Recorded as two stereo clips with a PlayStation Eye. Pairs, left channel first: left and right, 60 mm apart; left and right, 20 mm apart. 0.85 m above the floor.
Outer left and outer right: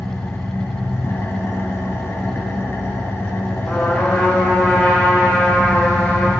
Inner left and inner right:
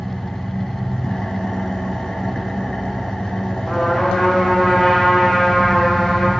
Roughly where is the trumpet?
Left.